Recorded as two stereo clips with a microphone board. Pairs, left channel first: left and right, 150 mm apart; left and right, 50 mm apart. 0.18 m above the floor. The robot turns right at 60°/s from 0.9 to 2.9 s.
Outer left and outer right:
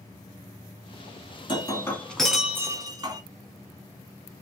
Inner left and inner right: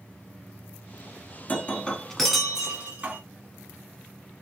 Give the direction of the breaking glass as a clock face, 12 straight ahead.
8 o'clock.